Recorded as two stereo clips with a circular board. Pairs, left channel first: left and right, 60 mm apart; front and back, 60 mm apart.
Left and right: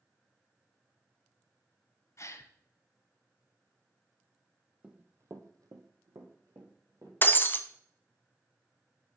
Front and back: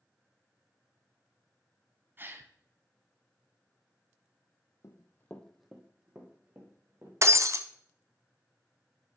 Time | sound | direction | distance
2.2 | a gasp | 125° left | 0.7 m
4.8 | running footsteps | 20° right | 1.0 m
7.2 | breaking glass | 145° left | 0.6 m